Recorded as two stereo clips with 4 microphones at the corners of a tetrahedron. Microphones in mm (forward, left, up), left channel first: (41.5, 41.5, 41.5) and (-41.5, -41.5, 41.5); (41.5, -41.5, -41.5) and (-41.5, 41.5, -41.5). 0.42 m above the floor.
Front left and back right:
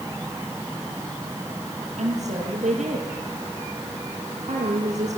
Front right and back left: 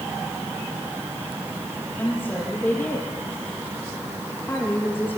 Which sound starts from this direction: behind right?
A woman speaking, at 2.0 s.